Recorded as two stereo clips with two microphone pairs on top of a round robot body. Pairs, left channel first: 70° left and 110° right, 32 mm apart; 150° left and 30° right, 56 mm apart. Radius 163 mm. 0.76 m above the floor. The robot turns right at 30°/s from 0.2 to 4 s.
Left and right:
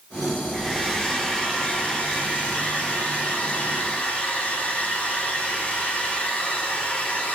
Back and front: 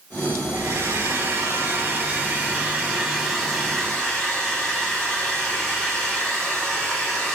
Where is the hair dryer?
25° right, 2 m; by 7.4 s 80° left, 2 m.